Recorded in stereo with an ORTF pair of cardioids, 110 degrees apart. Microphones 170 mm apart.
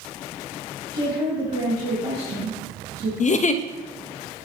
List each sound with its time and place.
0.9 s a woman speaking: 35° right, 3 m
3.2 s a giggle: 45° left, 0.6 m